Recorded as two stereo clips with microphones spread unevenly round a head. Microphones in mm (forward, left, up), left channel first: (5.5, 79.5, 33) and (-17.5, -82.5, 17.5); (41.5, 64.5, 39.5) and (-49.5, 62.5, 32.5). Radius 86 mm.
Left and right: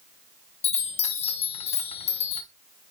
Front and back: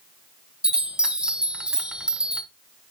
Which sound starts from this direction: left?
A chime, at 0.6 s.